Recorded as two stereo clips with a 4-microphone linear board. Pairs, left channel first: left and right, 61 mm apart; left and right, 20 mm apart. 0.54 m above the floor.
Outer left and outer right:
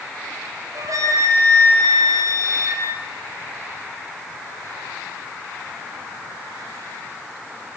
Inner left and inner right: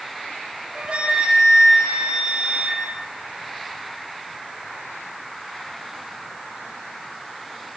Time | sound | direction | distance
0.8 | a flute | 70° right (ahead or behind) | 6 m